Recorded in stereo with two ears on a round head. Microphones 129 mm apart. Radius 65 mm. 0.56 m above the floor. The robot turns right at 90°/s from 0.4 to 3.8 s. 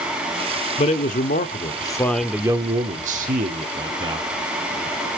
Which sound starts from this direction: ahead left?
A man speaking, at 0.8 s.